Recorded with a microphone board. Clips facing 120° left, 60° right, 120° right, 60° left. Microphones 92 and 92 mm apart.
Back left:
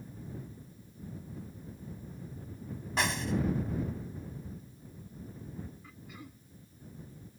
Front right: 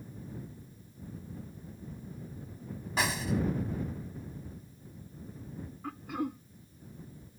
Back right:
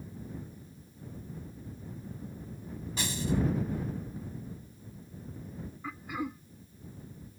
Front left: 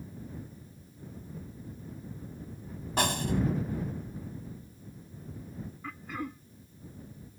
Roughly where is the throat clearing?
Ahead right.